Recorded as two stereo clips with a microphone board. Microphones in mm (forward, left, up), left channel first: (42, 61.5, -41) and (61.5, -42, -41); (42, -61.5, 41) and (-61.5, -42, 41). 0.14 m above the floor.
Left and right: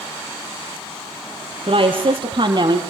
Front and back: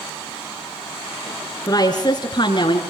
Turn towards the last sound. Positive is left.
turn(degrees=-40)